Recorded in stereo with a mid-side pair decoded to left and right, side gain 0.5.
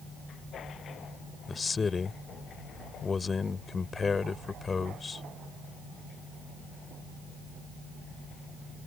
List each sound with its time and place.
1.5 s a man speaking: 30° left